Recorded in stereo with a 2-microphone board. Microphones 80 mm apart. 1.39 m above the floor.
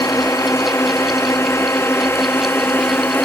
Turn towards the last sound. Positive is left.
turn(degrees=25)  # may be behind; listen again after turning